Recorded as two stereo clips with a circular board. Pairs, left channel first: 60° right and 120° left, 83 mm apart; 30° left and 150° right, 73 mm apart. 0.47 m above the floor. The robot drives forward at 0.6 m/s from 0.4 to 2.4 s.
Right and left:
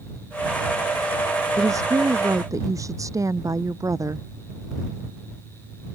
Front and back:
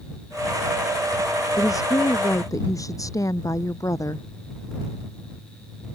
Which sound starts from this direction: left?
A woman speaking, at 1.6 s.